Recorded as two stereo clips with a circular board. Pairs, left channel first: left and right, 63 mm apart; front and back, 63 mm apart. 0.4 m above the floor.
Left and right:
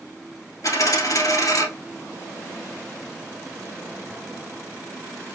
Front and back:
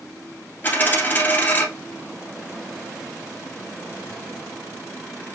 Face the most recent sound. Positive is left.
turn(degrees=60)